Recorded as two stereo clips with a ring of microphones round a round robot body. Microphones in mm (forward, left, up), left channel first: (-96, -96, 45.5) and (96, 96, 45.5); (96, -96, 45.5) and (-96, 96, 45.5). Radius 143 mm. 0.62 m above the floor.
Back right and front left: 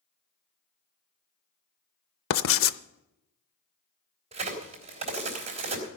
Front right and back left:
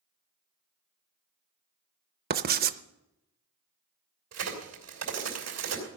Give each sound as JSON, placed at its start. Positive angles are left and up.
{"t": 2.3, "sound": "writing", "azimuth_deg": -170, "distance_m": 0.5}
{"t": 4.3, "sound": "a crack", "azimuth_deg": 110, "distance_m": 3.5}